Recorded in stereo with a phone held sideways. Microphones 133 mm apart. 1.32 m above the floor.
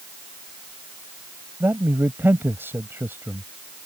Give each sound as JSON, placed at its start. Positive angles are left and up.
{"t": 1.6, "sound": "a man speaking", "side_deg": -15}